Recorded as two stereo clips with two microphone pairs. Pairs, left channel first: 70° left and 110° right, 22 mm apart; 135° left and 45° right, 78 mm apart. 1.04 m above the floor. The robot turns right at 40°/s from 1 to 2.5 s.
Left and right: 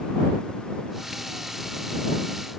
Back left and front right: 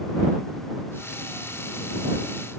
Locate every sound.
Only background noise.